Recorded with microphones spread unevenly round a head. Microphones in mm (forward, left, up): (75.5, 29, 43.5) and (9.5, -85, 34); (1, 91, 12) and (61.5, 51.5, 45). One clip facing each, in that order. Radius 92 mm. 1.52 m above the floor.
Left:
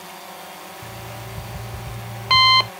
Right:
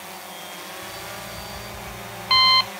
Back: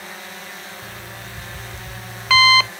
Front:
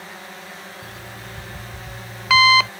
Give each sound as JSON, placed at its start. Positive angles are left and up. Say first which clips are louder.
{"t": 0.8, "sound": "an alarm clock", "louder": "even, back 1 dB", "azimuth_deg": 35}